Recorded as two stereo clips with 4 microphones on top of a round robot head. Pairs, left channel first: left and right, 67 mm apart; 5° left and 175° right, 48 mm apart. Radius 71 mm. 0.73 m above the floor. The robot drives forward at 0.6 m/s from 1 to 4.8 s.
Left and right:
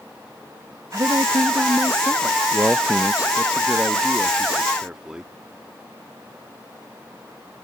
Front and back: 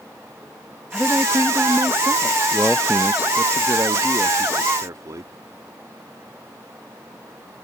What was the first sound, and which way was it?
A woman speaking, 110° right.